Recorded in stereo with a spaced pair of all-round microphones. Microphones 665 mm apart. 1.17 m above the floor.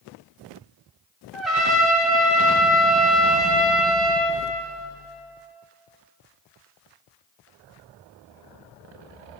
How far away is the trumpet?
About 1.3 m.